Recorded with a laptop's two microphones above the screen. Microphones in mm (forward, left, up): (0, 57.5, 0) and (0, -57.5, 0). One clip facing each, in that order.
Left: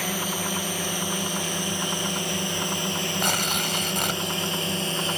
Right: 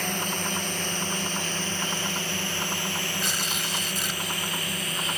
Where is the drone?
10° left (ahead or behind); by 5.2 s 30° left (ahead or behind).